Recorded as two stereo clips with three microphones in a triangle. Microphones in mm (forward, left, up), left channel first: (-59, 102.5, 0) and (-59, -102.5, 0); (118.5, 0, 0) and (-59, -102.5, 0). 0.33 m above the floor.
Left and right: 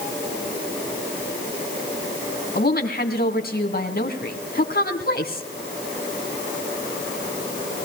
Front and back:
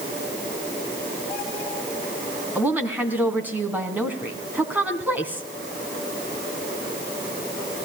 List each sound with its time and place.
2.5 s a woman speaking: 130° left, 2.5 m